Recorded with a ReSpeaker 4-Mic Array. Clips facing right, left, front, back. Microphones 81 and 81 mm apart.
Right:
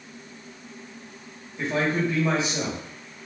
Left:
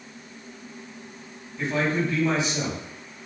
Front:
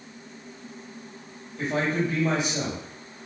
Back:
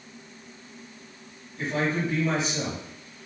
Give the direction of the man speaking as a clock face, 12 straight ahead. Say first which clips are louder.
Even, front 1 dB; 1 o'clock.